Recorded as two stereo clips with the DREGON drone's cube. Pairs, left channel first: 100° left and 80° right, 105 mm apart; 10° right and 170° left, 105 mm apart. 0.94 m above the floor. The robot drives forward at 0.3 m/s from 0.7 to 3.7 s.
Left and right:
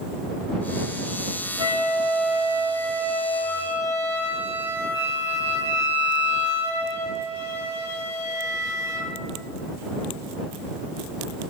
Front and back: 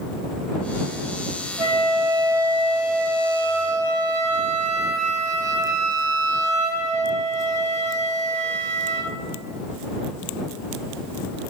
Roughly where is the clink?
I don't hear a clink.